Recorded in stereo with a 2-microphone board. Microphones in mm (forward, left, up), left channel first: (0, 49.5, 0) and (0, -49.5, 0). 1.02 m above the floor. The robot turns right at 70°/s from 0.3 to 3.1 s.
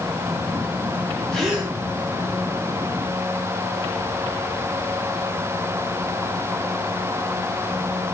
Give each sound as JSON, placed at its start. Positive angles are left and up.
{"t": 1.3, "sound": "a gasp", "side_deg": 5, "distance_m": 3.5}